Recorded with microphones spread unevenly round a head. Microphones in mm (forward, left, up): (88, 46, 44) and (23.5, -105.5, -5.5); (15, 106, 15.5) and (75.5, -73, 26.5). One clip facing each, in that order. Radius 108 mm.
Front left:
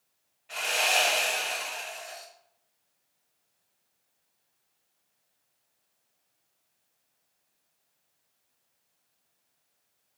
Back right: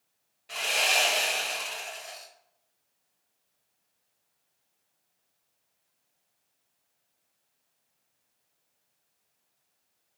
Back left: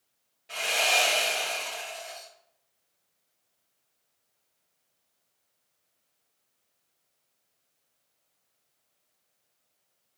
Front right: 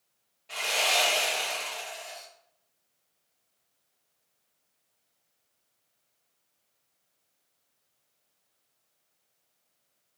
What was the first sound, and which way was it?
Sawing, 175° right.